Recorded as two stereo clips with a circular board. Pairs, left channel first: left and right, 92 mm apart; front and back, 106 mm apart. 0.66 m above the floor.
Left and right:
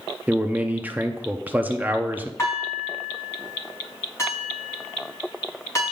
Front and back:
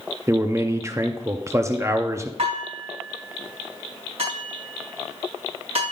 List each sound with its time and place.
0.3 s a man speaking: 145° right, 0.6 m
2.4 s dishes clattering: 150° left, 4 m